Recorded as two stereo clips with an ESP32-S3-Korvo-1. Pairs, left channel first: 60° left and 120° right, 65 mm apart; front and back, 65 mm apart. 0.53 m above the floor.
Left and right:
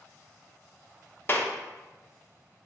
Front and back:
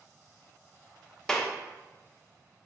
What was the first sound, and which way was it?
A clap, 70° left.